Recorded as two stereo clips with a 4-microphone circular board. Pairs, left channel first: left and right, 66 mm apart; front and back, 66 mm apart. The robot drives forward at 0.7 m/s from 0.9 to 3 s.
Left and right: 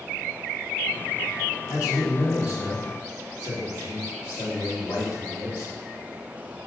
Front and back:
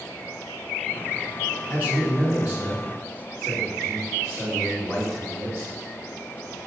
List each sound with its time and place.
1.7 s a man speaking: 105° left, 2 m; by 5.7 s 125° left, 2.5 m